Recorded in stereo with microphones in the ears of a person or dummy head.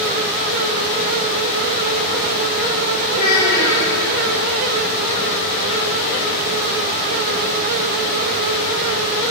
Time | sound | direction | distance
3.1 | a child speaking | 15° left (ahead or behind) | 2.5 m